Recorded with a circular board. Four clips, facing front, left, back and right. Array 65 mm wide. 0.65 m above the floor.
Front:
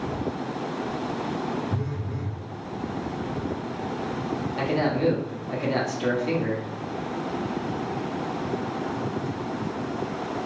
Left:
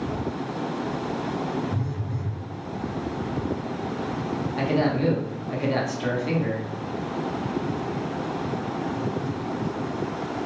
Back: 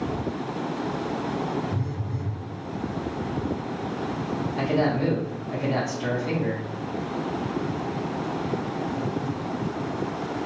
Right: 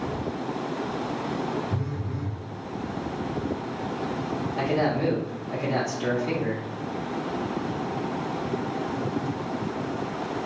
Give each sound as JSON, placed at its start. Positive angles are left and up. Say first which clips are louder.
{"t": 1.7, "sound": "a phone buzzing", "louder": "left 1 dB, even", "azimuth_deg": -35, "distance_m": 1.1}
{"t": 4.6, "sound": "a man speaking", "louder": "left 1 dB, back 1 dB", "azimuth_deg": 45, "distance_m": 1.3}